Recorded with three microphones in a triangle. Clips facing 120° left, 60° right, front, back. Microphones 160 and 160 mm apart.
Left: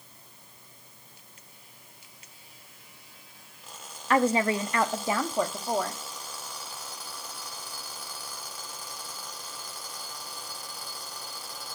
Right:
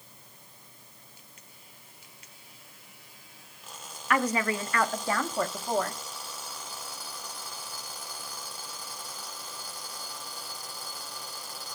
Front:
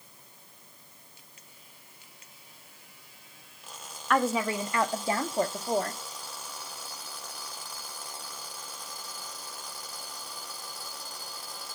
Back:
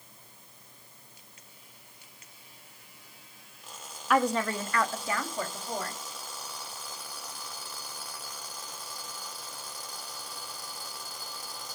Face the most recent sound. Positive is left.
turn(degrees=35)